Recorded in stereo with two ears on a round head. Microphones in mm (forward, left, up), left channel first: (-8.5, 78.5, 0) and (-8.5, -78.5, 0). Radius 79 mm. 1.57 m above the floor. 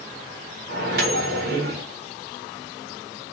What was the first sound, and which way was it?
A microwave, 55° right (ahead or behind).